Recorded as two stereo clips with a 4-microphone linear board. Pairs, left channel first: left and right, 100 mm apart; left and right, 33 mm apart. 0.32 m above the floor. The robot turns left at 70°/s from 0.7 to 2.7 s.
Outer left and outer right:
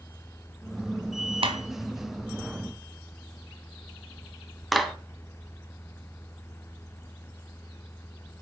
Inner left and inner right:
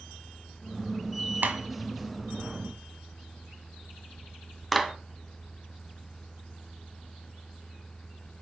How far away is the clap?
About 1.6 m.